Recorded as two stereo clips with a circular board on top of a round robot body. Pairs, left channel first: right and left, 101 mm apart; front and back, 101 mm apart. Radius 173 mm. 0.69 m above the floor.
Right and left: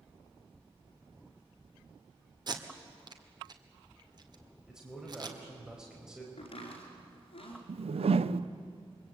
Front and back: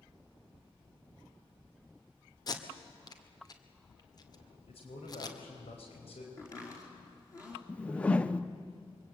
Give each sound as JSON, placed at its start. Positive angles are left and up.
{"t": 2.5, "sound": "tape being pulled", "azimuth_deg": 45, "distance_m": 1.9}
{"t": 4.7, "sound": "a man speaking", "azimuth_deg": 5, "distance_m": 4.5}
{"t": 6.4, "sound": "chopping", "azimuth_deg": -60, "distance_m": 5.0}
{"t": 7.7, "sound": "a whoosh", "azimuth_deg": 75, "distance_m": 0.7}